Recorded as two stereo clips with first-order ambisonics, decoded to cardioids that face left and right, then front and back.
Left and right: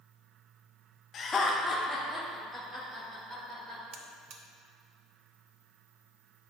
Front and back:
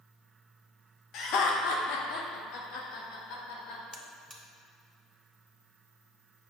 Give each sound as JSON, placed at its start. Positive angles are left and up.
{"t": 1.1, "sound": "laughter", "azimuth_deg": 35, "distance_m": 0.7}
{"t": 3.9, "sound": "a buzzer", "azimuth_deg": -90, "distance_m": 0.5}